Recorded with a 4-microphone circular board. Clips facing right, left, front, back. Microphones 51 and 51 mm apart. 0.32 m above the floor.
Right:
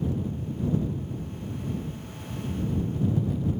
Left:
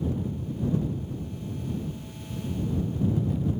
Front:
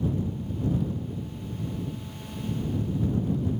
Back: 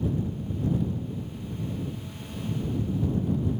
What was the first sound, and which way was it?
Only background noise.